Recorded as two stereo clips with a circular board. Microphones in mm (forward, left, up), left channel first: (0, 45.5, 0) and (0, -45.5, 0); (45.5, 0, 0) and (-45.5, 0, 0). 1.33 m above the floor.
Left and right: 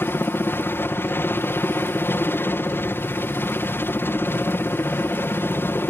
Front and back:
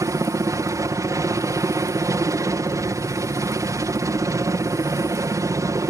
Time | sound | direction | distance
0.0 | a helicopter | 145° left | ?